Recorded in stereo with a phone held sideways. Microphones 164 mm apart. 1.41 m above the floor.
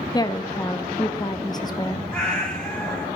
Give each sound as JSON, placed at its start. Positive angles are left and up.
{"t": 0.1, "sound": "a woman speaking", "side_deg": 25, "distance_m": 0.6}
{"t": 2.1, "sound": "a cat meowing", "side_deg": 5, "distance_m": 3.0}